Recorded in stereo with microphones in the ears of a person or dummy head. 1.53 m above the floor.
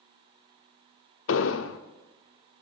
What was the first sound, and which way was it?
An explosion, 70° left (ahead or behind).